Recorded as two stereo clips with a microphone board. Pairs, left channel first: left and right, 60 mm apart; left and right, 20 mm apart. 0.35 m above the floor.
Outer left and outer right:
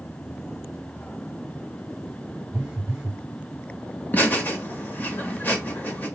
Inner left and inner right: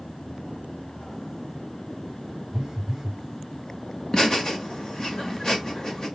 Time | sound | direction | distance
2.5 | a phone buzzing | 20° right (ahead or behind) | 0.9 m
4.1 | laughter | 35° left (ahead or behind) | 0.9 m